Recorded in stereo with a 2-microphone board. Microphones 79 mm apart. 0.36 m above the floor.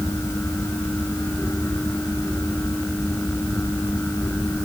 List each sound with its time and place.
Only background noise.